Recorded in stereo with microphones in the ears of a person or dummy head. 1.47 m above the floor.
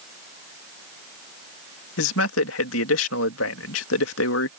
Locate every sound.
2.0 s a man speaking: 80° left